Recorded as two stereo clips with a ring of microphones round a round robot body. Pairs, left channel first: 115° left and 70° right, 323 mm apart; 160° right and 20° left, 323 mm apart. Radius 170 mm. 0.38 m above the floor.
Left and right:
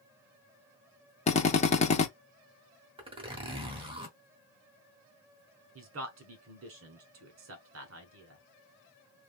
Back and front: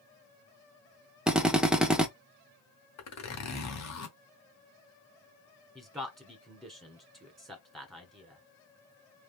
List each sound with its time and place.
1.3 s a drill: 105° left, 0.7 m
3.0 s a zipper: 140° right, 1.1 m
5.8 s a man speaking: 70° right, 1.2 m